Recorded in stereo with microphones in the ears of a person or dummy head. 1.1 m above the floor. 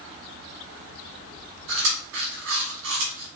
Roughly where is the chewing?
Right.